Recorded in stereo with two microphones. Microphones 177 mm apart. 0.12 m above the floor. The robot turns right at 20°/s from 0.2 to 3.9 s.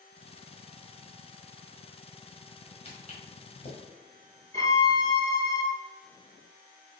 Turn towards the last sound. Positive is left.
turn(degrees=20)  # may be behind; listen again after turning